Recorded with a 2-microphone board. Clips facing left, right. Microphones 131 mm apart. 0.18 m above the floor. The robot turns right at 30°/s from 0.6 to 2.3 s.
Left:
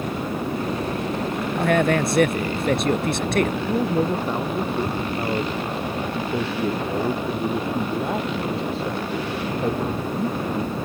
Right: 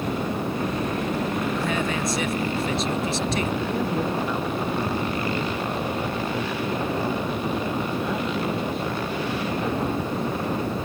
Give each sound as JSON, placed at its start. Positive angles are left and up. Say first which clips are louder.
{"t": 1.6, "sound": "a man speaking", "louder": "left 6 dB", "side_deg": 65}
{"t": 3.7, "sound": "a man speaking", "louder": "left 4 dB", "side_deg": 35}